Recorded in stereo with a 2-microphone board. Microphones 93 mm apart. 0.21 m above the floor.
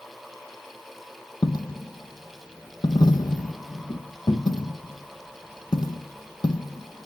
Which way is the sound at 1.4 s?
50° left (ahead or behind).